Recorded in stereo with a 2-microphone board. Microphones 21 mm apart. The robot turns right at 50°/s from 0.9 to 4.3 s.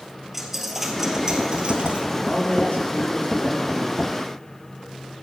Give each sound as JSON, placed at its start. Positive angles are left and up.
{"t": 0.3, "sound": "a dropped coin", "azimuth_deg": -170, "distance_m": 2.0}
{"t": 2.2, "sound": "a man speaking", "azimuth_deg": 50, "distance_m": 7.0}